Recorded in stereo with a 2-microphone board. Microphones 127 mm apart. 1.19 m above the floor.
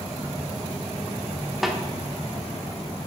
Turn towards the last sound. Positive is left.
turn(degrees=0)  # may be behind; listen again after turning